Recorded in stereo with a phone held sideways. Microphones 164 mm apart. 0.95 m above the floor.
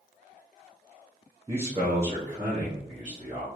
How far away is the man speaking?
About 1.1 m.